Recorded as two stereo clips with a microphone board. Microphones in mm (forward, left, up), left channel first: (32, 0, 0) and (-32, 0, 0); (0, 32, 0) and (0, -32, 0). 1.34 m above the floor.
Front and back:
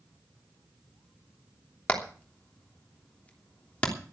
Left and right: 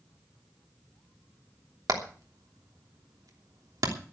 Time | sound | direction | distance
1.9 | hammering | 70° right | 3 m